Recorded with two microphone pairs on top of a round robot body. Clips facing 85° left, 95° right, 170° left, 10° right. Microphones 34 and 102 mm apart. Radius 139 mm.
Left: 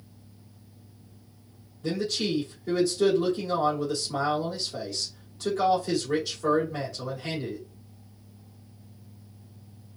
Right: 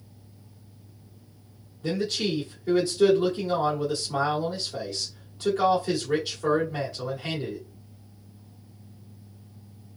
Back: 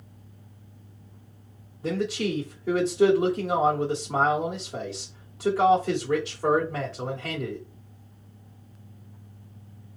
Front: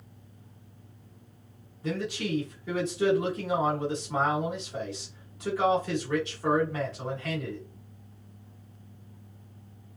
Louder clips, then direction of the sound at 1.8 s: Right 1 dB, back 5 dB; 170° right.